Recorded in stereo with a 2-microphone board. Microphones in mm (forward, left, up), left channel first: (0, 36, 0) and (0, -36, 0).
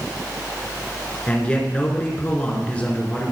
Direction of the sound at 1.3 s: 15° left (ahead or behind).